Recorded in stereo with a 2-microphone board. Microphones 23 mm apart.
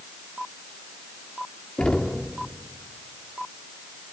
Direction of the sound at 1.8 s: 50° left (ahead or behind).